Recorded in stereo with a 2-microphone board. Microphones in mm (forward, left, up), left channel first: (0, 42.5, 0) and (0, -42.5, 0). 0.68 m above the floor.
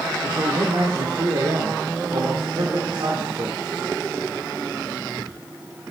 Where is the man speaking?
60° right (ahead or behind), 1.6 m.